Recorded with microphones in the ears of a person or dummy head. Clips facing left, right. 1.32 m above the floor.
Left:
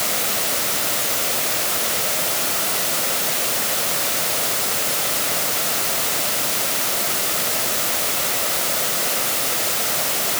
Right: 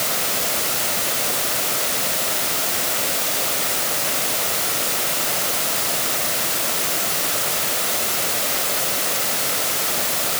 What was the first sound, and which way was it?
Only background noise.